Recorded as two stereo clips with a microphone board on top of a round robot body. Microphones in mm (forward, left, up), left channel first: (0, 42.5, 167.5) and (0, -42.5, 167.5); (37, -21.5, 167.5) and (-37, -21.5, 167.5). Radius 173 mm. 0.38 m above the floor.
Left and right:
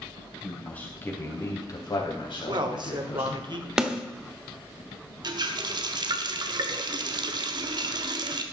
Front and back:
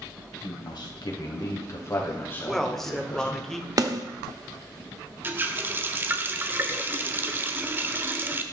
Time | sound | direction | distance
0.4 | a man speaking | 10° left | 3.5 m
2.5 | a man speaking | 85° right | 2 m
3.8 | a snare drum | 170° right | 1.5 m
5.2 | a running tap | 120° right | 1.4 m